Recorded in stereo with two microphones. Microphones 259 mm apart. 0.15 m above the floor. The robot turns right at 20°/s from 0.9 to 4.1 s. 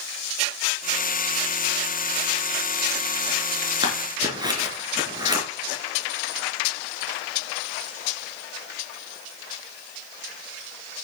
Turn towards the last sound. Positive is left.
turn(degrees=-15)  # may be behind; listen again after turning